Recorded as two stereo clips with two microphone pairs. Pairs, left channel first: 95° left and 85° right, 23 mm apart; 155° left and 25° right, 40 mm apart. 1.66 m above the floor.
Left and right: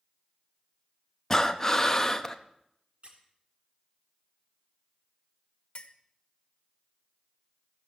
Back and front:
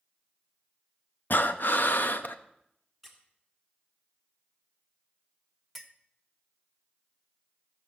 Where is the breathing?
165° left, 0.7 m.